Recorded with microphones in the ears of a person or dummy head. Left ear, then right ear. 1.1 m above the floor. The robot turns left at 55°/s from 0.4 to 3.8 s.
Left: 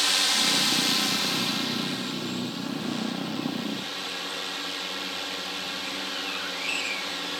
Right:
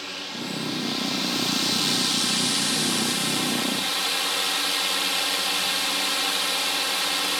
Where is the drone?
50° left; by 7.4 s 140° right.